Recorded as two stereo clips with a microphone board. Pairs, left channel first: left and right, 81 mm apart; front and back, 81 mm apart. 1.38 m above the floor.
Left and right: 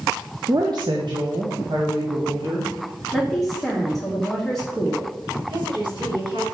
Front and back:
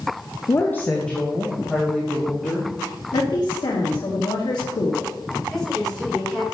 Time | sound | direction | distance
0.5 | a woman speaking | 50° right | 0.6 m
3.1 | a woman speaking | 5° right | 1.5 m
5.5 | a woman speaking | 85° right | 4 m